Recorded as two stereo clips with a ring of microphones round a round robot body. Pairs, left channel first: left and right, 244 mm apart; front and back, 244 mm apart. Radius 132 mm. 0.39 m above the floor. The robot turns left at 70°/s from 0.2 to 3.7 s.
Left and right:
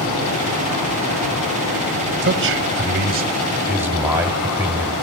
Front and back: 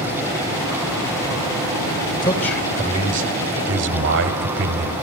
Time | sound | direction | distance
2.2 | a man speaking | 65° right | 1.1 m